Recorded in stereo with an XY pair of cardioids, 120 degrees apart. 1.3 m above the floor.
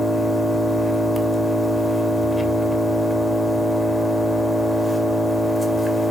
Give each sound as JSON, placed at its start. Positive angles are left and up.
{"t": 0.0, "sound": "an engine running", "azimuth_deg": 15, "distance_m": 2.5}